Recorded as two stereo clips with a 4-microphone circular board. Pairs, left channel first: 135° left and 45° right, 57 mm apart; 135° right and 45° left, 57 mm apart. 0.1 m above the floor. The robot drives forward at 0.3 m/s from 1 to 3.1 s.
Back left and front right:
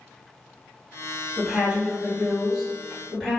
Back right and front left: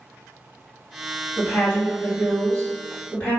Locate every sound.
1.4 s a woman speaking: 95° right, 1.8 m; by 3.4 s 120° right, 1.9 m